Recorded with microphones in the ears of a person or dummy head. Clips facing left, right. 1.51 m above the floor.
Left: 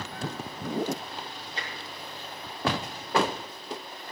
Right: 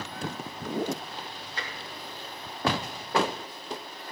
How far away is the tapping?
About 3.5 m.